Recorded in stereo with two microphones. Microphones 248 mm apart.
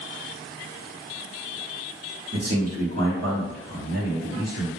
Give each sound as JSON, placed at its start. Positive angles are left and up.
{"t": 2.3, "sound": "a man speaking", "side_deg": -75, "distance_m": 1.1}